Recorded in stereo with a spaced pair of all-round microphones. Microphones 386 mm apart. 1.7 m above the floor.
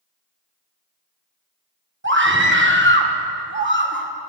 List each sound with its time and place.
2.0 s a scream: 30° right (ahead or behind), 1.4 m